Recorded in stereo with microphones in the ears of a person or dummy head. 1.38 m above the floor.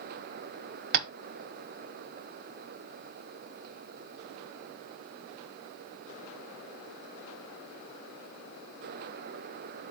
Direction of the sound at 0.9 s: 50° right (ahead or behind).